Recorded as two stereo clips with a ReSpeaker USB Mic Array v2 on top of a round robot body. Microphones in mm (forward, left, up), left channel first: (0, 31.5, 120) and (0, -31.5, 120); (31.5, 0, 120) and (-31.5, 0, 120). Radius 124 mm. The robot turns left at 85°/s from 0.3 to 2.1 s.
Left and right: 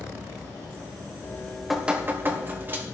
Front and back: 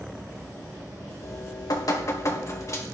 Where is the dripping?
40° left, 2.5 m; by 2.8 s 35° right, 2.5 m.